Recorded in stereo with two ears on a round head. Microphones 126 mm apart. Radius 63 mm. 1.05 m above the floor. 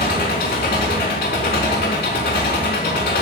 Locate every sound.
0.0 s an engine running: 70° left (ahead or behind), 4 m